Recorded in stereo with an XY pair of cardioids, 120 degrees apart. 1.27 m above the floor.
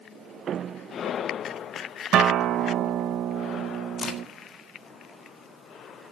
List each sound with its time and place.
2.1 s a guitar: 65° right, 0.7 m
4.0 s a crack: 40° left, 1.9 m